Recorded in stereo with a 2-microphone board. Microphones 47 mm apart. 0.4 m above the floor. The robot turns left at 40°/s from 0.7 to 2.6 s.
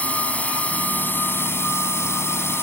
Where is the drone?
145° left; by 2.6 s 70° left.